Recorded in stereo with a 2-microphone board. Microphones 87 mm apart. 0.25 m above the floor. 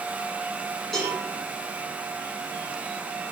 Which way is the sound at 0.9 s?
5° left (ahead or behind).